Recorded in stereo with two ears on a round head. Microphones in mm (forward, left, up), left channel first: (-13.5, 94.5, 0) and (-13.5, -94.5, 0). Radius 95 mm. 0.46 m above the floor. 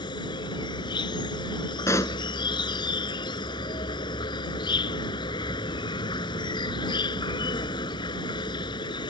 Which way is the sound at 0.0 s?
20° left (ahead or behind).